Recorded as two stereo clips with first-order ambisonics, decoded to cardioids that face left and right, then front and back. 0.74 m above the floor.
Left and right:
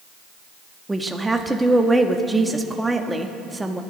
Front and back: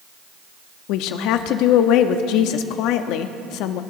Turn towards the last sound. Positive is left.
turn(degrees=-10)